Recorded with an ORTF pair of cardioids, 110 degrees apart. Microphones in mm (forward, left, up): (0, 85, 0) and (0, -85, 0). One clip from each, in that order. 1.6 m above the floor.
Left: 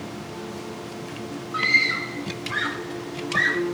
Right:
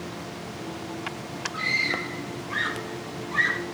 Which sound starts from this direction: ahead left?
A scream, at 1.5 s.